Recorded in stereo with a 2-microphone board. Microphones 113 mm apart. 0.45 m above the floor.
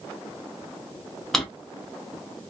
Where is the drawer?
5° left (ahead or behind), 0.6 m.